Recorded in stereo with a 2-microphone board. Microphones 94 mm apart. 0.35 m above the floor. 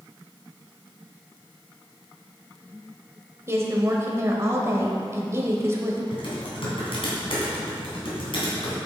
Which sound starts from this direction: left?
Typing on a keyboard, at 6.1 s.